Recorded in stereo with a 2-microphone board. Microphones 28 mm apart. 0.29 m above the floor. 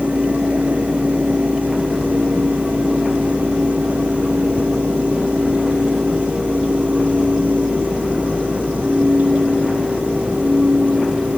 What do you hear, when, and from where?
Only background noise.